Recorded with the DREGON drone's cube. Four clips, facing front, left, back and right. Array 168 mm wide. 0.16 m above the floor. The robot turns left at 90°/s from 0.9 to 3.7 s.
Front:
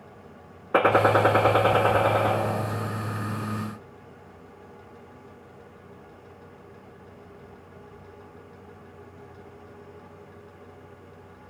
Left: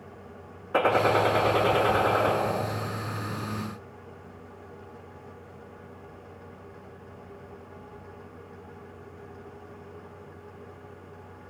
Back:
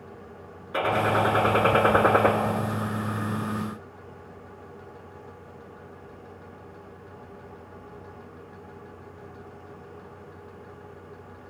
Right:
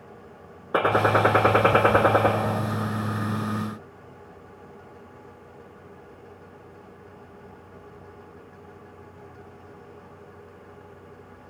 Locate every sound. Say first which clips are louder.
0.7 s a gunshot: right 2 dB, front 4 dB; 35° right, 0.5 m; by 2.3 s 165° right, 0.5 m